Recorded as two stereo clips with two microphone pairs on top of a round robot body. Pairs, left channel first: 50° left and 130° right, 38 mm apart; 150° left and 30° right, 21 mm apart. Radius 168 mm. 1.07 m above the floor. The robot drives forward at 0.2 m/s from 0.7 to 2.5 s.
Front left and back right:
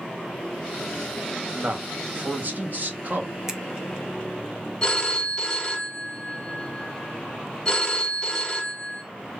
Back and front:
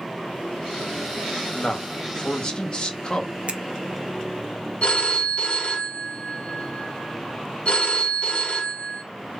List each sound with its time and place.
1.6 s a man speaking: 165° right, 0.9 m
3.5 s a finger snap: 55° right, 0.7 m
4.8 s a phone ringing: 120° left, 0.7 m